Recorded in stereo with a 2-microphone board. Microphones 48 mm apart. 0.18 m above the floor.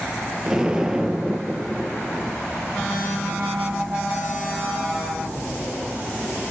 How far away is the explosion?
About 1.1 m.